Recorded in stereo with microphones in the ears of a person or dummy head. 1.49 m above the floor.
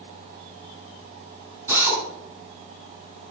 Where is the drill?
10° right (ahead or behind), 6 m.